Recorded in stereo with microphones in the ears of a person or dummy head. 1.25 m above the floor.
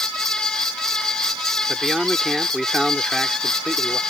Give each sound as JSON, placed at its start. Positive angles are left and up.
{"t": 1.7, "sound": "a man speaking", "side_deg": 0}